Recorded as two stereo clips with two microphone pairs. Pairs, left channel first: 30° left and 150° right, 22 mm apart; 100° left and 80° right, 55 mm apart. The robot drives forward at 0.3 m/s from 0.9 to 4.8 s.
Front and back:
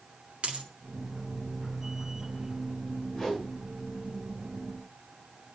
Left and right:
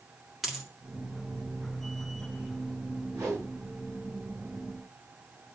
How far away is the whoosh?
About 6.5 m.